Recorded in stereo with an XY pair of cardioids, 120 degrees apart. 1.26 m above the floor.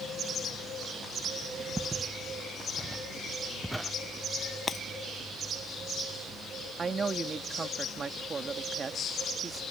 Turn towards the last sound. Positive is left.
turn(degrees=-30)